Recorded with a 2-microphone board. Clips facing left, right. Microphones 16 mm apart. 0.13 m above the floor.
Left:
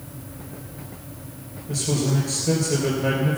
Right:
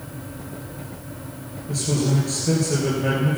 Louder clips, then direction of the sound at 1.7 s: Right 1 dB; centre (ahead or behind).